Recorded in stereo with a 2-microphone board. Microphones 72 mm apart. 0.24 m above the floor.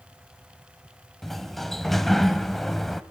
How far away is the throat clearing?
I don't hear throat clearing.